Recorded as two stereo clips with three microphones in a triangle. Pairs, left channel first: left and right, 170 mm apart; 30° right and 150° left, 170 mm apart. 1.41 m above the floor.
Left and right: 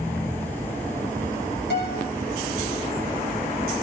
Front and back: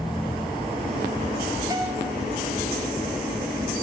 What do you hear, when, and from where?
1.7 s a guitar: 80° left, 5.5 m